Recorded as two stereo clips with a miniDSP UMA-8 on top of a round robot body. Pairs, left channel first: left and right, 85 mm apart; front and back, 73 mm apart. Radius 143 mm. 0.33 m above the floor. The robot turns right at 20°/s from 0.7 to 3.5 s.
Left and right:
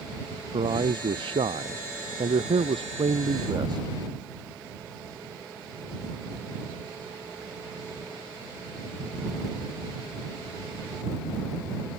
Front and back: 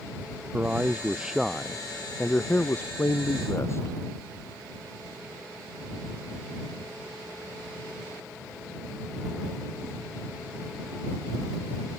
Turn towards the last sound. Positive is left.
turn(degrees=-55)